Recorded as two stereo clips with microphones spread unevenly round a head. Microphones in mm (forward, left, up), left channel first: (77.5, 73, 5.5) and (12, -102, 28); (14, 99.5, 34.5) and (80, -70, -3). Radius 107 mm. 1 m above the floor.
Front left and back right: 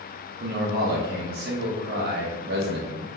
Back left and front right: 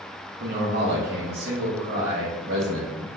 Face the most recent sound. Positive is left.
turn(degrees=-75)